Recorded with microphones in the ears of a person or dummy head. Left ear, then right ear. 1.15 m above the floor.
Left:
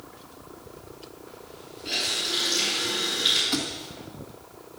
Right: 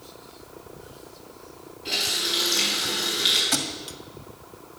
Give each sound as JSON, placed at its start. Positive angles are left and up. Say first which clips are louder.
{"t": 1.9, "sound": "a running tap", "louder": "right 2 dB", "side_deg": -15, "distance_m": 6.5}
{"t": 3.5, "sound": "a thud", "louder": "right 2 dB", "side_deg": -35, "distance_m": 1.7}